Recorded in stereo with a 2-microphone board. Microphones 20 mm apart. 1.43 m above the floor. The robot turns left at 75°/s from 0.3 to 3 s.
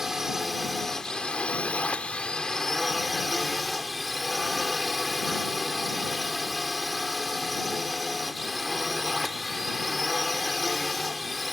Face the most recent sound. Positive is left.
turn(degrees=-5)